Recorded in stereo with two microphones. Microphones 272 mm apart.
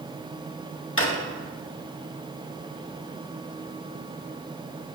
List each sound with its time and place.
1.0 s a drawer: 50° left (ahead or behind), 1.2 m